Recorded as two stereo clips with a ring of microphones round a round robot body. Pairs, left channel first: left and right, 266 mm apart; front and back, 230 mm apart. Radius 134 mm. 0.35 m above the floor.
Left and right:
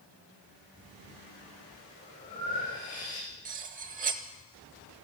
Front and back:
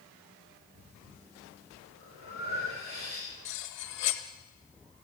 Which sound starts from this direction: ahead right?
Cutlery clinking, at 3.5 s.